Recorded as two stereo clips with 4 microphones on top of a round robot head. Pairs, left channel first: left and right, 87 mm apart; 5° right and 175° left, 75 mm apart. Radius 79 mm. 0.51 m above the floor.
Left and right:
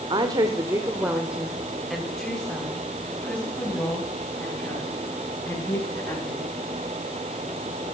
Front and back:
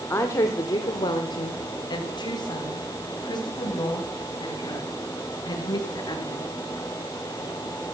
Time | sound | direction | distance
0.1 | a woman speaking | 60° right | 1.6 m